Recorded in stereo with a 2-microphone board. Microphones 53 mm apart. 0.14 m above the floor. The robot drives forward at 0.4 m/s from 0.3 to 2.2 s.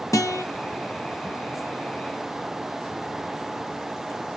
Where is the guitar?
80° left, 0.6 m; by 0.5 s 85° left, 0.6 m.